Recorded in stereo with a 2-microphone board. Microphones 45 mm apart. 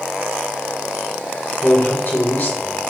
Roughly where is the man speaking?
Left.